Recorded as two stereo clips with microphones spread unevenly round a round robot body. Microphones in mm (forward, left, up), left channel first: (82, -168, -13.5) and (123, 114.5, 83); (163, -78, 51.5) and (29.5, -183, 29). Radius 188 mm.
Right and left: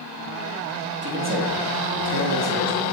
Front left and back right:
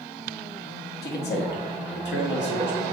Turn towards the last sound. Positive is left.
turn(degrees=45)